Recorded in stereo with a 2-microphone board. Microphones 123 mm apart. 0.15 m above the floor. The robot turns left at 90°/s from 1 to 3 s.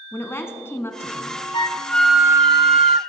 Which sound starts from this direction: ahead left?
A flute, at 1.5 s.